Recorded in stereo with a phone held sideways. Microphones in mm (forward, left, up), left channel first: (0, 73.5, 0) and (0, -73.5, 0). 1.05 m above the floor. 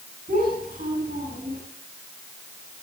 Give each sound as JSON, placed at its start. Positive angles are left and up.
{"t": 0.3, "sound": "a child speaking", "side_deg": -70, "distance_m": 7.5}